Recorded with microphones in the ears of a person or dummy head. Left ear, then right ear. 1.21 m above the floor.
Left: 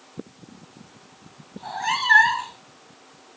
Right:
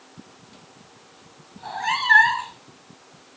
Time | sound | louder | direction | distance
1.6 | a cat meowing | even | 5° right (ahead or behind) | ?